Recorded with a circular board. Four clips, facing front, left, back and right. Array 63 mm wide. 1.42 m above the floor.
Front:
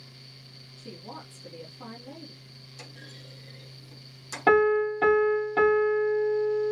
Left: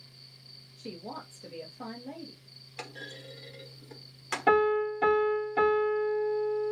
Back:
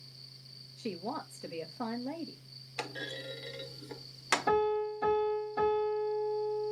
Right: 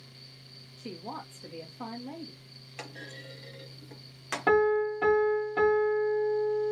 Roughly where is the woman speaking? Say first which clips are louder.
Right 1 dB, back 5 dB; behind.